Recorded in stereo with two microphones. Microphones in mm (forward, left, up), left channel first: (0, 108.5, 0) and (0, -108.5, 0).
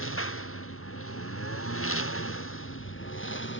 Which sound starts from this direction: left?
A lawn mower, at 0.0 s.